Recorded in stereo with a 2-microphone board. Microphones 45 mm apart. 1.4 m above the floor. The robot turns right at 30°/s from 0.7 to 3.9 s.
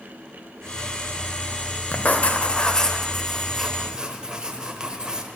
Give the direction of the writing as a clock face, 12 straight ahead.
7 o'clock.